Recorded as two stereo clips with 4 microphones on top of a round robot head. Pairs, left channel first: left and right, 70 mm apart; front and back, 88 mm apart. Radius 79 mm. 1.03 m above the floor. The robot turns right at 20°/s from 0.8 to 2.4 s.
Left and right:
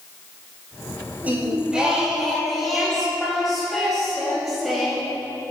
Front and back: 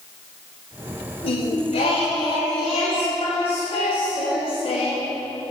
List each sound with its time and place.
1.2 s singing: 20° right, 1.2 m; by 5.2 s straight ahead, 1.2 m